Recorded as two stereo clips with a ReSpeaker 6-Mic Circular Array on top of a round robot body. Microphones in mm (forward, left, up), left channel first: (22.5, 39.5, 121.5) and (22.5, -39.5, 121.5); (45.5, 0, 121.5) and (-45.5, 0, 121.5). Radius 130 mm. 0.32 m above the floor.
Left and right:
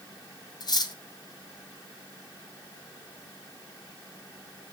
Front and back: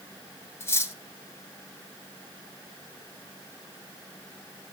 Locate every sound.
0.6 s cutlery clinking: 65° left, 1.8 m